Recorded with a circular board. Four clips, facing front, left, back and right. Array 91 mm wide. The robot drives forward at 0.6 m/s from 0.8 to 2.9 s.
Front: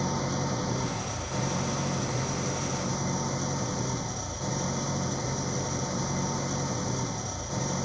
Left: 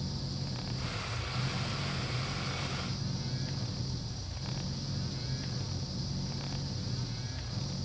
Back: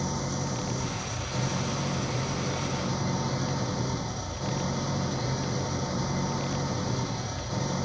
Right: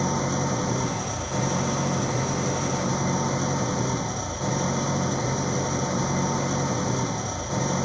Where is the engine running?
85° right; by 7.9 s 95° right.